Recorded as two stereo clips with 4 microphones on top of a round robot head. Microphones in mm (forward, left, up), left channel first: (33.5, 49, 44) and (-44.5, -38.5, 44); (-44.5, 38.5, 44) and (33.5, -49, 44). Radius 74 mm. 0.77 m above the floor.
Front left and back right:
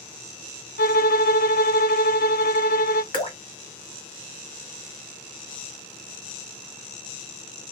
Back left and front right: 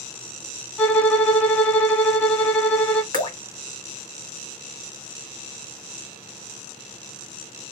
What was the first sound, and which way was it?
A violin, 50° left.